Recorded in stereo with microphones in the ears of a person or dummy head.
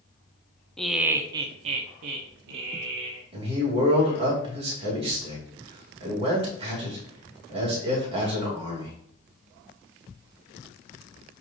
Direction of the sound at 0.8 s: Centre (ahead or behind).